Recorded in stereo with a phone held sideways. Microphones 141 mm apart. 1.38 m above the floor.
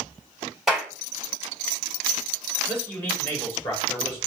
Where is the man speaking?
15° left (ahead or behind), 4.5 m.